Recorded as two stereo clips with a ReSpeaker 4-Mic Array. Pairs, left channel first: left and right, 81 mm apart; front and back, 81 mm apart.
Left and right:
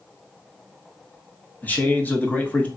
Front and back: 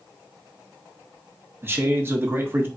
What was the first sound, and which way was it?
A man speaking, 145° left.